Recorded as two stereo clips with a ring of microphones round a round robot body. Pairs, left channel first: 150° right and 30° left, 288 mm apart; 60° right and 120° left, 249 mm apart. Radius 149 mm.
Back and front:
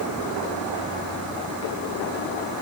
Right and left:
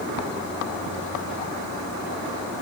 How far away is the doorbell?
I don't hear a doorbell.